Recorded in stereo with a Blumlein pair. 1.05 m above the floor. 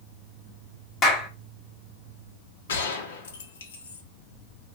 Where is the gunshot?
60° left, 0.8 m.